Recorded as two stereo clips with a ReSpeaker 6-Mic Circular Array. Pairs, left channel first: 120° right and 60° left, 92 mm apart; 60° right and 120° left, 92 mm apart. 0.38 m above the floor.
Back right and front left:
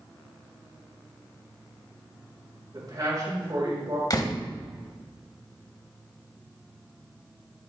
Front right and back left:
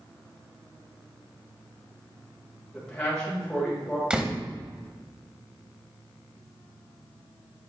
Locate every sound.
2.7 s a man speaking: 25° left, 3.5 m
4.1 s a door slam: 160° right, 1.3 m